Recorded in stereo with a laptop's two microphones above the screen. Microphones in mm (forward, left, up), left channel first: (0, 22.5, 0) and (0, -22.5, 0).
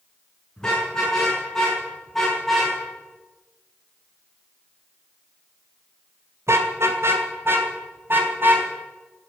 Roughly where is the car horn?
Centre.